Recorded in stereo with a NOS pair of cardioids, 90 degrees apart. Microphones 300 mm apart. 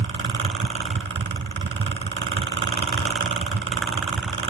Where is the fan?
40° right, 3.5 m.